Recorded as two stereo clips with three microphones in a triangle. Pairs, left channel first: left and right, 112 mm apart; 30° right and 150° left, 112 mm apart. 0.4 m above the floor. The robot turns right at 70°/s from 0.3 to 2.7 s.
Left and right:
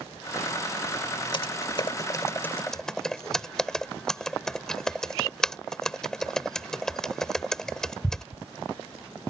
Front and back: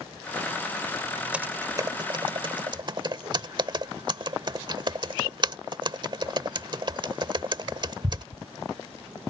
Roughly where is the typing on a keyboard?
Left.